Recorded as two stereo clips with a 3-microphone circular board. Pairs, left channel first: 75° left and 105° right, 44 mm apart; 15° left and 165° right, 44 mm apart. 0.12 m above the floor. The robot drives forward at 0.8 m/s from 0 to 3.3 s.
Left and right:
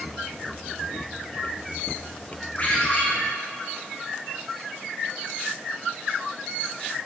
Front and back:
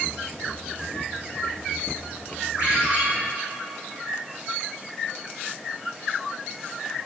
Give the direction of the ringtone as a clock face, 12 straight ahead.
8 o'clock.